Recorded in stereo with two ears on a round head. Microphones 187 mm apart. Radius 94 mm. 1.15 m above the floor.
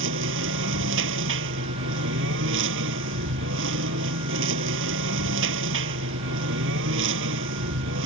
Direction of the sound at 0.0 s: 70° right (ahead or behind).